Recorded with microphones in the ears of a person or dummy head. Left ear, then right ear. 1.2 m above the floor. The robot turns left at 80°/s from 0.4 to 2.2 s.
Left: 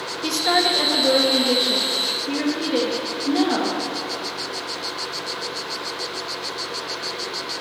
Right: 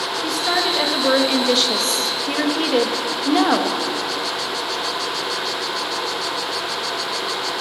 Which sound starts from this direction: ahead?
A woman speaking, at 0.2 s.